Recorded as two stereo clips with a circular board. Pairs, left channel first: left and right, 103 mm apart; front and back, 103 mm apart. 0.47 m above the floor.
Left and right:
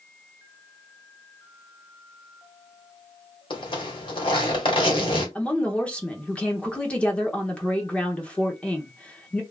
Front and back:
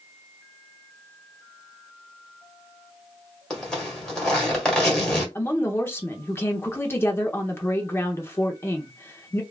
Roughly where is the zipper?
Left.